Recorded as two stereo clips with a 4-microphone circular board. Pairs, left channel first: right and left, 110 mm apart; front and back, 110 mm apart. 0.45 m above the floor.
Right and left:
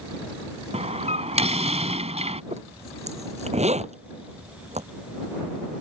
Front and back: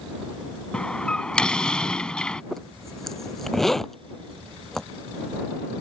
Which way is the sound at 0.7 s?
80° left.